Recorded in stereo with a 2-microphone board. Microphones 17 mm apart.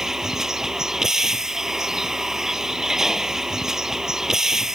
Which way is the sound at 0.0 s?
30° right (ahead or behind).